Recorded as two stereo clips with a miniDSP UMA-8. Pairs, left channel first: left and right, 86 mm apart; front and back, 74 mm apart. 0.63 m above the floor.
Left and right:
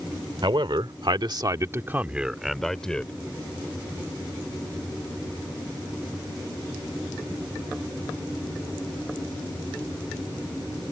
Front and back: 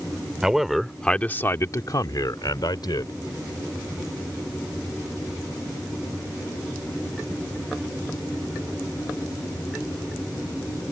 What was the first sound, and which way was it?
A man speaking, 100° right.